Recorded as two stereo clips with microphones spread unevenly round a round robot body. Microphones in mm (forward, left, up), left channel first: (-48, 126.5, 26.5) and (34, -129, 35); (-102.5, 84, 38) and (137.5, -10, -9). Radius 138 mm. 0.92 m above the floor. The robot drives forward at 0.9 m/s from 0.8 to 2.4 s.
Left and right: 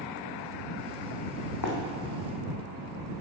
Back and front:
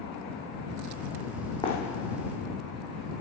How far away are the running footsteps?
About 2 m.